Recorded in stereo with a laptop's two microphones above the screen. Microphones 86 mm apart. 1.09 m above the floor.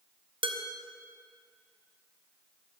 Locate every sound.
0.4 s dishes clattering: 75° right (ahead or behind), 1.1 m